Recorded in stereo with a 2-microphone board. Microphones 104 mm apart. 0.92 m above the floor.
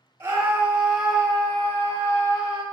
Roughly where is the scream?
Right.